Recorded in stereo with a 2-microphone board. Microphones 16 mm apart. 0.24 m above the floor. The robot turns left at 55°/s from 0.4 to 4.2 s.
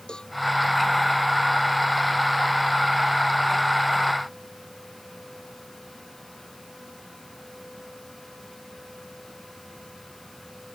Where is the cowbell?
65° left (ahead or behind).